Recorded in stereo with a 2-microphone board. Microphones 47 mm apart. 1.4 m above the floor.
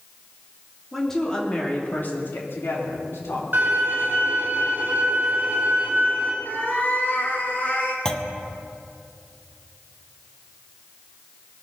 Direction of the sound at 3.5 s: 45° right (ahead or behind).